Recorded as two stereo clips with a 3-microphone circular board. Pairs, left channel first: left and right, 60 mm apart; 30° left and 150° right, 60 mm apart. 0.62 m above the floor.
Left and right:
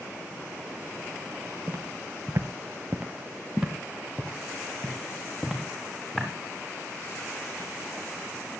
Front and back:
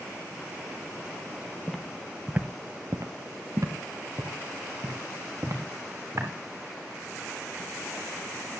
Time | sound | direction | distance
1.7 | footsteps | 50° right | 1.1 m